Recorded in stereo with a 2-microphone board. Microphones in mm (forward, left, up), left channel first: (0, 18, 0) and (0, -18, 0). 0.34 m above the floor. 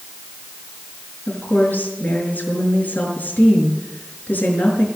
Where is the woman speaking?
50° left (ahead or behind), 5.5 m.